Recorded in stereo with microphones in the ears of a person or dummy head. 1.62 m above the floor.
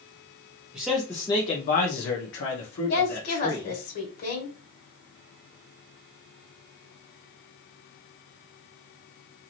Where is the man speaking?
10° right (ahead or behind), 0.7 m; by 3.8 s 65° left (ahead or behind), 1.6 m.